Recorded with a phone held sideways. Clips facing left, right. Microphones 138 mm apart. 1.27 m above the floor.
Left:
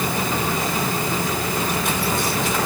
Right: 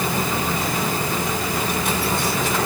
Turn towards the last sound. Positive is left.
No sound to turn to.